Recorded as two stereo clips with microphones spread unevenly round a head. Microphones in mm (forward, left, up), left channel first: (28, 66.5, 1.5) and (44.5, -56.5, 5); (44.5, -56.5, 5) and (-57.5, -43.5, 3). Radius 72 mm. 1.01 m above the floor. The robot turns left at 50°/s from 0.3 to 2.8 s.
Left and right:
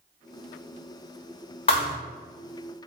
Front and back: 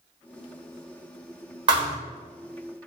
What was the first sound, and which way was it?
A thud, 130° left.